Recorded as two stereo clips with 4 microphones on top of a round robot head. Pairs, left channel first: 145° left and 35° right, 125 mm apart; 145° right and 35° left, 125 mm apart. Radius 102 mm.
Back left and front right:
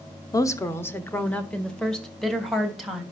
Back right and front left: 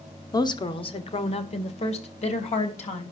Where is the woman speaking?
175° right, 1.5 m; by 3.0 s 125° right, 4 m.